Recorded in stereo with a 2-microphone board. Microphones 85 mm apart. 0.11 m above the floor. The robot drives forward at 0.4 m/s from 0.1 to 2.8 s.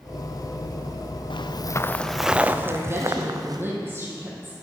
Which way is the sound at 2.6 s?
25° right (ahead or behind).